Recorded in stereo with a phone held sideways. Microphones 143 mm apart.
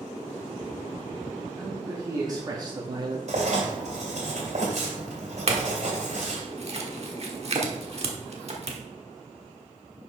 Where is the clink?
50° right (ahead or behind), 1.1 m.